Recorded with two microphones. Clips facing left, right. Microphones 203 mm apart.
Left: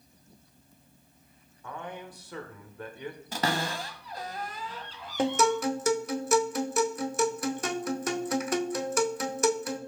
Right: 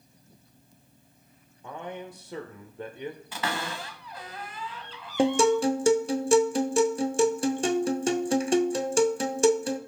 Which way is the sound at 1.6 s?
25° right (ahead or behind).